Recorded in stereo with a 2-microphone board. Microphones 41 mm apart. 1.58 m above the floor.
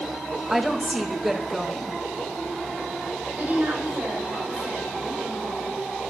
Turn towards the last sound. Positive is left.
turn(degrees=-45)  # may be behind; listen again after turning